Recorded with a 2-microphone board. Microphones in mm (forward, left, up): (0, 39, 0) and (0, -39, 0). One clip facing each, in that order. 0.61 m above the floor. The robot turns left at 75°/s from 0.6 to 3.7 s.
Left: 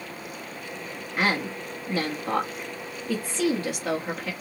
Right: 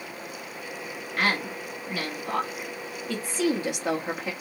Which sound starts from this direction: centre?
A woman speaking, at 1.2 s.